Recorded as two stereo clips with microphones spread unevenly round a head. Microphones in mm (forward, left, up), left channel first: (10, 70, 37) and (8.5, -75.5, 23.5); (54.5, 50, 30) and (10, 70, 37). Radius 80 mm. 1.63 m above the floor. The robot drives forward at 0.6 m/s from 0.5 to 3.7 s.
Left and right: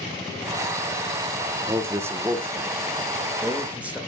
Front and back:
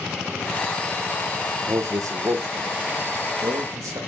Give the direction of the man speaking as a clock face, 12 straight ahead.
5 o'clock.